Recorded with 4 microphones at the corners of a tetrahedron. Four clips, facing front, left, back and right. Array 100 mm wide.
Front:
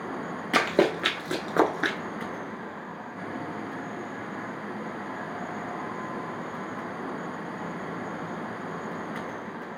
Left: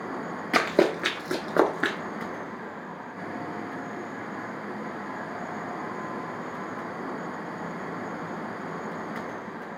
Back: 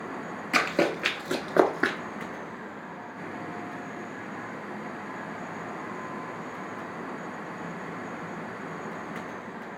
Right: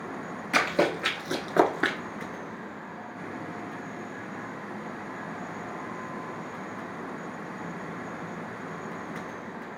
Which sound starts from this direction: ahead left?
Running footsteps, at 0.5 s.